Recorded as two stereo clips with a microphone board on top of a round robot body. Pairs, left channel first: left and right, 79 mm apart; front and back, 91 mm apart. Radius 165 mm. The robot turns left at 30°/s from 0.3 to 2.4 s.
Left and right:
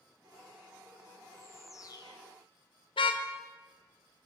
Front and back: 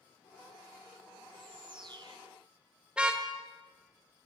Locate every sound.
1.3 s a bird: 155° left, 1.3 m; by 2.2 s 130° left, 1.3 m
3.0 s a car horn: 100° left, 2 m